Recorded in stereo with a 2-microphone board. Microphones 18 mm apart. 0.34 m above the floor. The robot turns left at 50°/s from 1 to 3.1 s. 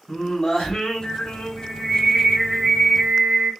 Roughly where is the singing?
Ahead left.